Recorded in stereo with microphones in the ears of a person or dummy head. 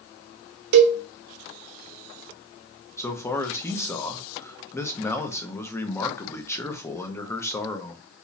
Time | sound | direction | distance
0.7 | a cowbell | 60° right (ahead or behind) | 0.6 m
3.0 | a man speaking | 15° left (ahead or behind) | 0.7 m